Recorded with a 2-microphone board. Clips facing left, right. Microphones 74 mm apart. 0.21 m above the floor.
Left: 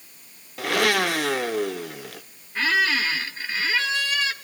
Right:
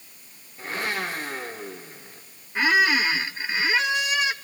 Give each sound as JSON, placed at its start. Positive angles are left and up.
{"t": 0.6, "sound": "a blender", "side_deg": 80, "distance_m": 1.1}
{"t": 2.5, "sound": "a squeak", "side_deg": -15, "distance_m": 0.8}